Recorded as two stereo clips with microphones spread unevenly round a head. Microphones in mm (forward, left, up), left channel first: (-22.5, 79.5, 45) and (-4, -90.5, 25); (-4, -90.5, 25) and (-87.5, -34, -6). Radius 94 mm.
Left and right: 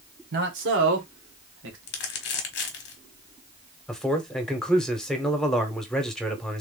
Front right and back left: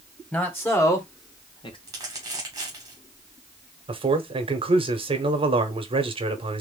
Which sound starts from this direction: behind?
A man speaking, at 3.9 s.